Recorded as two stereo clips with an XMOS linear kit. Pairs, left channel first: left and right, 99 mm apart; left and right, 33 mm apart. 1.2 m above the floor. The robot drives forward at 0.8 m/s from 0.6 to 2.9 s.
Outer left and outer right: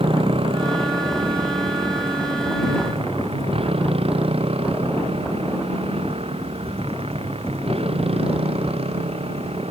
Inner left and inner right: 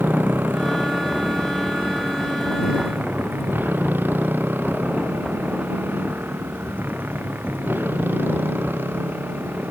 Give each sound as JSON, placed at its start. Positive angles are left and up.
{"t": 0.0, "sound": "a motorcycle", "side_deg": -65}